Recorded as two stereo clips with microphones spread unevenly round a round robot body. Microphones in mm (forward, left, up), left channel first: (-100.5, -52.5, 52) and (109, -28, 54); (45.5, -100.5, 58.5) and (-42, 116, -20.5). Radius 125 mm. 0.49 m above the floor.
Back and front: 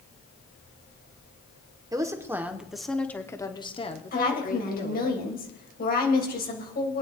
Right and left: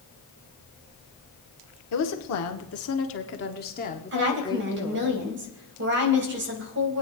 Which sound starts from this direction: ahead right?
A woman speaking, at 1.9 s.